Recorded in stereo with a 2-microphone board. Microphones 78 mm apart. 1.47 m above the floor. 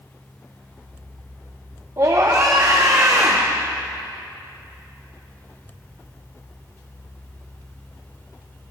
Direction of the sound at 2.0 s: 40° right (ahead or behind).